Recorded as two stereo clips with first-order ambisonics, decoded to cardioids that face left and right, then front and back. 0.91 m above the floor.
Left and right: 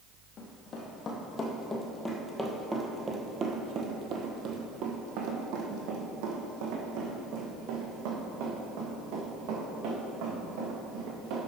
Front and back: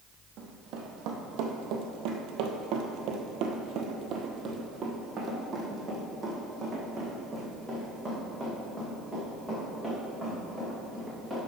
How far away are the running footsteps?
About 2 m.